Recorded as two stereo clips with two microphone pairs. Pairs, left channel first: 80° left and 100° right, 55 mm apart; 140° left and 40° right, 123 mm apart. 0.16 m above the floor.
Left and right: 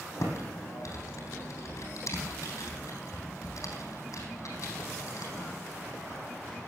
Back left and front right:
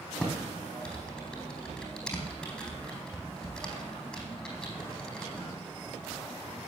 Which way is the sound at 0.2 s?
55° left.